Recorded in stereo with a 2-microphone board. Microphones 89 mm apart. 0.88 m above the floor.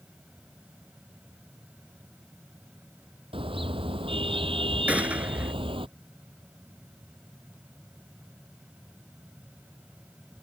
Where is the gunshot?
15° right (ahead or behind).